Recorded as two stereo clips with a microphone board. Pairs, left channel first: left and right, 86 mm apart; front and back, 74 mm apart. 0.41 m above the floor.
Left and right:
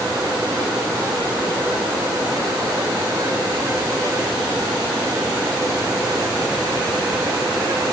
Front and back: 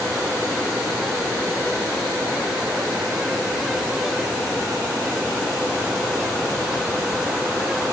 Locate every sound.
Only background noise.